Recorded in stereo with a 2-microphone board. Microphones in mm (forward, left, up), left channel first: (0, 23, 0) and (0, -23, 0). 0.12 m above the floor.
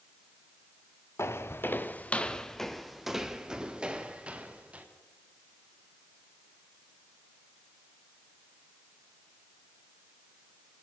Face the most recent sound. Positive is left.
turn(degrees=-30)  # may be behind; listen again after turning